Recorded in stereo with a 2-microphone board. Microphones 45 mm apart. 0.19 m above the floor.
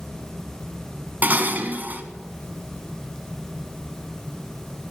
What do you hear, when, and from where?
1.2 s dishes clattering: 40° right (ahead or behind), 1.0 m